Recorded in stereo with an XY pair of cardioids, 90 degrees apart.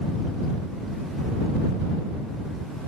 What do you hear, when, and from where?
Only background noise.